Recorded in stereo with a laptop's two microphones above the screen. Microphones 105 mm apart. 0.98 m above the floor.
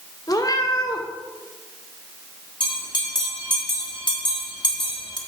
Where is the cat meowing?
40° left (ahead or behind), 1.2 m.